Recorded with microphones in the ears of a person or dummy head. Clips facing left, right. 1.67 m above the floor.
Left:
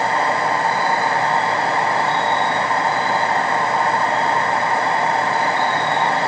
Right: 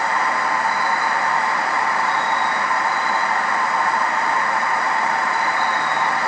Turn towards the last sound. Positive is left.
turn(degrees=30)  # may be behind; listen again after turning